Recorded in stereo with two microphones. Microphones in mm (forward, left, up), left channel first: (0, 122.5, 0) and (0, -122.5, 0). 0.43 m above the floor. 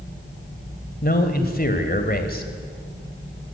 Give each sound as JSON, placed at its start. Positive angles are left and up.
{"t": 1.0, "sound": "a man speaking", "side_deg": 40, "distance_m": 2.0}